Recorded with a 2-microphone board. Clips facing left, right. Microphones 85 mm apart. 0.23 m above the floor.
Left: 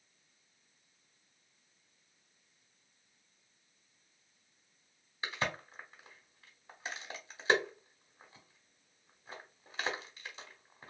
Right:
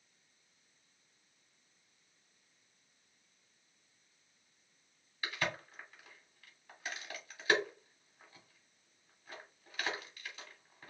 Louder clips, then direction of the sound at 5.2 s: Left 1 dB; 25° left (ahead or behind).